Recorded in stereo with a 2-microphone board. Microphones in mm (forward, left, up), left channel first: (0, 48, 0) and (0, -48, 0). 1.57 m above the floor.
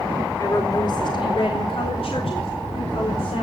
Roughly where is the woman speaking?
Left.